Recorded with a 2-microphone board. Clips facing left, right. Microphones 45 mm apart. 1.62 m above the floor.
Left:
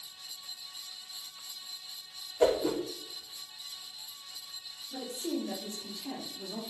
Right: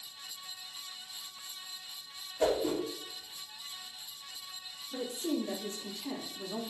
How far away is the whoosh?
About 2.5 m.